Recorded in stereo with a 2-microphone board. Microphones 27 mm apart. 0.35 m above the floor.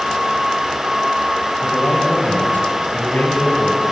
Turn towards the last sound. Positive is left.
turn(degrees=75)  # may be behind; listen again after turning